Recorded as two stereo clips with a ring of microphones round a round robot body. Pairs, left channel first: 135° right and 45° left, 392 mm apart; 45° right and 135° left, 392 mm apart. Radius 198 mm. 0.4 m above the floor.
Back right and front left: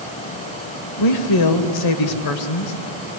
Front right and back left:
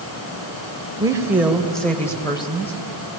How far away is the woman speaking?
About 2 m.